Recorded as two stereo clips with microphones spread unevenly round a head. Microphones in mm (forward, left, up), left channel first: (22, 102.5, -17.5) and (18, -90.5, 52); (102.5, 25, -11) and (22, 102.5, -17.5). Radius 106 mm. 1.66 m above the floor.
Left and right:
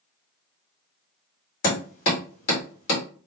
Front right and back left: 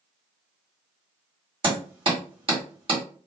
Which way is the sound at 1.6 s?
120° left.